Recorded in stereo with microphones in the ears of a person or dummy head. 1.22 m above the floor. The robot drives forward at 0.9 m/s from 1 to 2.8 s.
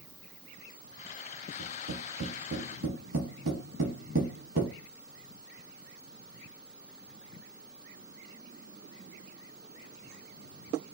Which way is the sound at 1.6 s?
70° right (ahead or behind).